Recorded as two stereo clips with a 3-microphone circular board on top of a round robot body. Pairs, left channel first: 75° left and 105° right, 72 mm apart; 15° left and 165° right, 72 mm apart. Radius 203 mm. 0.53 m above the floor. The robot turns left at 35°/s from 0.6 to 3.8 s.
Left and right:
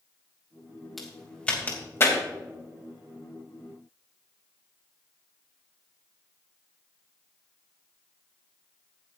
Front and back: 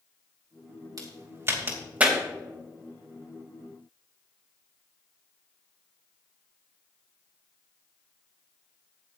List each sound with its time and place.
1.0 s a crack: 165° left, 3 m; by 2.2 s 120° left, 3 m